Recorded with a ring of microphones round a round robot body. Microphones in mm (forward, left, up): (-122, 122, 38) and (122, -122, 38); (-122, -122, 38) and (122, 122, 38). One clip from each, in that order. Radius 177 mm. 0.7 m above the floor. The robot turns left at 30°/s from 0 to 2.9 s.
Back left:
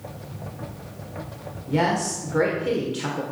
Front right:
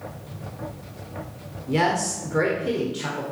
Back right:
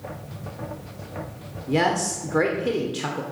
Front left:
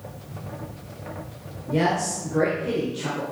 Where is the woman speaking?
110° right, 1.9 m; by 3.2 s 145° right, 1.9 m.